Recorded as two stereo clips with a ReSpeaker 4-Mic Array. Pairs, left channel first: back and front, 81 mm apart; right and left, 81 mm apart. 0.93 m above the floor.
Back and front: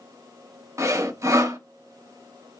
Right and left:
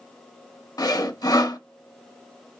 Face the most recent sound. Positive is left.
turn(degrees=-50)